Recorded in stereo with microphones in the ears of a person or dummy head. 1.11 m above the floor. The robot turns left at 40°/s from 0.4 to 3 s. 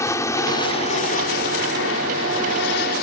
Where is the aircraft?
15° left (ahead or behind); by 3.0 s 50° left (ahead or behind).